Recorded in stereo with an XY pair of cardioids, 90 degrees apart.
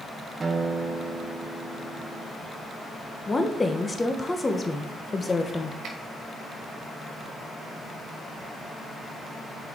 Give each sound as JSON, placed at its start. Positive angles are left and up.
{"t": 0.4, "sound": "a guitar", "azimuth_deg": -35, "distance_m": 1.1}
{"t": 3.3, "sound": "a woman speaking", "azimuth_deg": 25, "distance_m": 1.3}
{"t": 5.8, "sound": "a finger snap", "azimuth_deg": -70, "distance_m": 2.5}